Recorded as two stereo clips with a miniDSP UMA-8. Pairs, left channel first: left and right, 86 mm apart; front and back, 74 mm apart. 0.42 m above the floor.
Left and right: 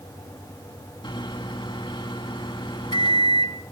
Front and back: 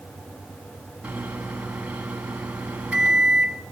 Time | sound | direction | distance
1.0 | a microwave | 110° left | 3.5 m